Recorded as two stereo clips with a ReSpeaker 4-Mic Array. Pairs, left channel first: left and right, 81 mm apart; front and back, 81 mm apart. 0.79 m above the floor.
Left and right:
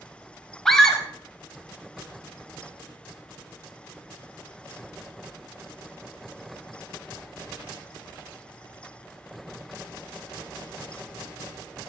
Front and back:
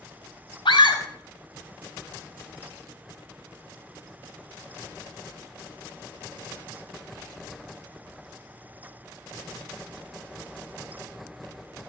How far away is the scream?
About 4 m.